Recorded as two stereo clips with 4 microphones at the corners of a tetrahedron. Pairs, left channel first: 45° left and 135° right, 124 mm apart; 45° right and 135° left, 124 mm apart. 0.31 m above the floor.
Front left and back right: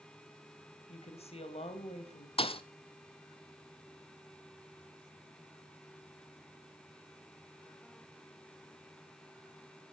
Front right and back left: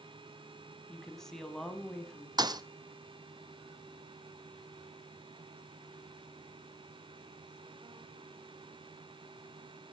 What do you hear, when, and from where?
0.9 s a woman speaking: 40° left, 1.7 m
2.4 s a thud: 80° left, 0.7 m